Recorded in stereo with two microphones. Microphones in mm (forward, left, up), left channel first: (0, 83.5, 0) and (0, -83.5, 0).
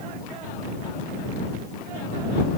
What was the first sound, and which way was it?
Only background noise.